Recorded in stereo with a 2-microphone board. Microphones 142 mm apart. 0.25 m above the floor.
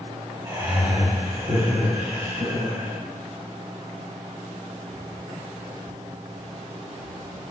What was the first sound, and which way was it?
Laughter, 30° right (ahead or behind).